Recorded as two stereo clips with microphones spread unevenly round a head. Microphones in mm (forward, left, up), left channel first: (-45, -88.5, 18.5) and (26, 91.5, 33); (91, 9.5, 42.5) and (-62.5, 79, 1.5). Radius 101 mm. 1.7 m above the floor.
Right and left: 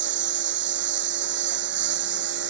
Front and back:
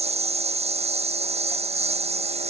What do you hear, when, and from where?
0.0 s a lawn mower: 100° left